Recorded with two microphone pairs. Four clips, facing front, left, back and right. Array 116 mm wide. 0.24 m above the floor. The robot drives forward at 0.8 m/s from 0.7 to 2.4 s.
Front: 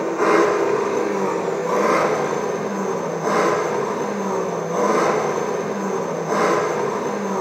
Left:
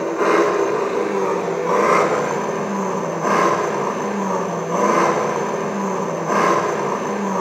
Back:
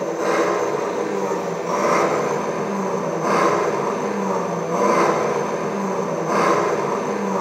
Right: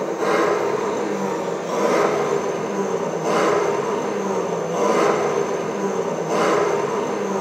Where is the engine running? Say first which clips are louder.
Left 3 dB, front 3 dB; 50° left, 1.4 m; by 7.4 s 120° left, 1.3 m.